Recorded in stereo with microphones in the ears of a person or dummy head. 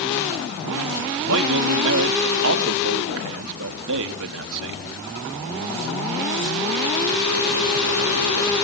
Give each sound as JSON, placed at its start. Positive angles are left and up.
{"t": 1.3, "sound": "a man speaking", "side_deg": -75, "distance_m": 1.7}